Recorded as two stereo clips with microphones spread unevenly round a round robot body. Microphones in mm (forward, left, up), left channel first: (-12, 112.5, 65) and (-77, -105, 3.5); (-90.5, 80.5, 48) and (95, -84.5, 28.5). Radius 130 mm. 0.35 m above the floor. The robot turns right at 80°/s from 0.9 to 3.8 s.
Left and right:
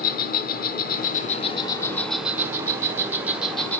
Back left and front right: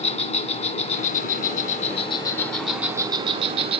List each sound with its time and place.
0.0 s an insect: 100° left, 1.5 m; by 3.8 s 30° right, 1.5 m